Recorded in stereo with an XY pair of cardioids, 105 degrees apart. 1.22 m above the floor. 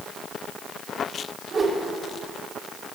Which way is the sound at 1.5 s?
40° right.